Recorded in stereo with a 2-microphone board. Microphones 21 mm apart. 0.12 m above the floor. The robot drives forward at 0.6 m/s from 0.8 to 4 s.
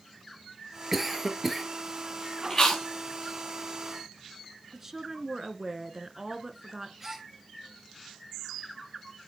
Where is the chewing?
25° left (ahead or behind), 4.5 m.